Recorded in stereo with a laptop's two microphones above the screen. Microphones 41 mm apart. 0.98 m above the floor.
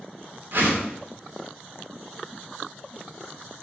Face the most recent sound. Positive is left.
turn(degrees=-50)  # may be behind; listen again after turning